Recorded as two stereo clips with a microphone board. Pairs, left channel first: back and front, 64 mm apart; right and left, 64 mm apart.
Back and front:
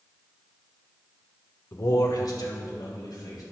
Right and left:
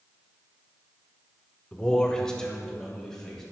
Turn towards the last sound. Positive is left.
turn(degrees=-170)